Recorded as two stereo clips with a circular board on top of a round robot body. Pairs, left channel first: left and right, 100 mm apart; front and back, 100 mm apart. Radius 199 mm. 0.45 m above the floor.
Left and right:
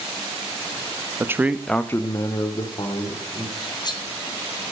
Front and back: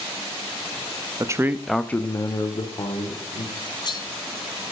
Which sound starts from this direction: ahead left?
Cutlery clinking, at 3.6 s.